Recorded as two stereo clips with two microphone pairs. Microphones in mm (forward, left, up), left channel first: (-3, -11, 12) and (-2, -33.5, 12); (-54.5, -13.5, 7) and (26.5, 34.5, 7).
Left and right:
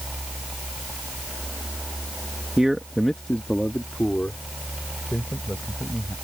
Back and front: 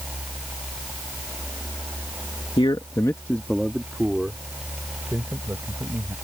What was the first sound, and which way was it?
A man speaking, 145° right.